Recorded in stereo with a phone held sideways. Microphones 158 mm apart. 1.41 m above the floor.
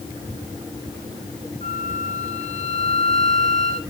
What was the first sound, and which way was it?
A flute, 60° right (ahead or behind).